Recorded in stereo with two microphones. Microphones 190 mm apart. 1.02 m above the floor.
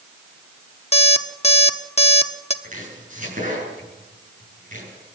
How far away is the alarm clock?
About 1.1 m.